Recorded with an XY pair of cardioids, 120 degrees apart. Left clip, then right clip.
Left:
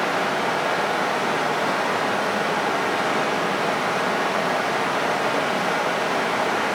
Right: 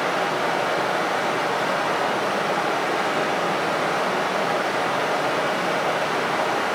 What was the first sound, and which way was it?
Running water, 20° left.